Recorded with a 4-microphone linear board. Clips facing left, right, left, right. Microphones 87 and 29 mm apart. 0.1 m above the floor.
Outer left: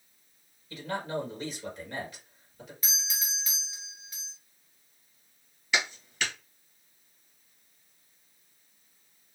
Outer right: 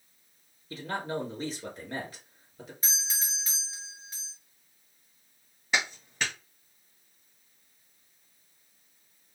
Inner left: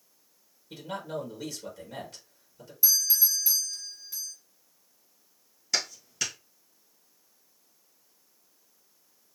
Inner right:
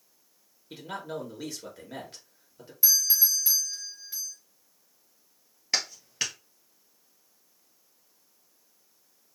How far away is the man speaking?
About 1.9 m.